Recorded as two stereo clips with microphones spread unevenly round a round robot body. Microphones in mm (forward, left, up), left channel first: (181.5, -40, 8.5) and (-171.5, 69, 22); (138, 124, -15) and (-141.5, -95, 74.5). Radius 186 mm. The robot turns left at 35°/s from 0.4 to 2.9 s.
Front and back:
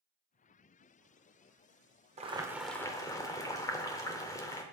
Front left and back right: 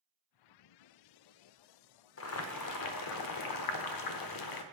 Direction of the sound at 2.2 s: 90° left.